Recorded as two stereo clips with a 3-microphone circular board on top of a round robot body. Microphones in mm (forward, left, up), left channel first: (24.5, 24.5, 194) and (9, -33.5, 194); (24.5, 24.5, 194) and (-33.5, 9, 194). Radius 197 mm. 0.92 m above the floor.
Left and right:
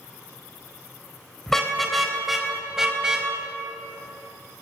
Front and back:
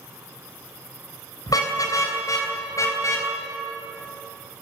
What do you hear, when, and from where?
1.5 s a car horn: 10° right, 3 m; by 3.3 s 25° right, 4 m